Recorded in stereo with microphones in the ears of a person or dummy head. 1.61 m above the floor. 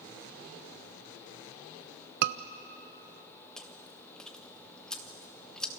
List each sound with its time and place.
2.2 s a scream: 55° right (ahead or behind), 0.8 m
3.6 s chewing: 5° left (ahead or behind), 1.5 m